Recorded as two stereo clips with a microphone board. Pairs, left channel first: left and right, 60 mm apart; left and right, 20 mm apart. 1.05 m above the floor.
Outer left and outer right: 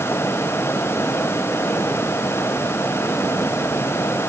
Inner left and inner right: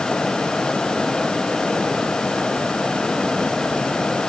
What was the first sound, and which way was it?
Only background noise.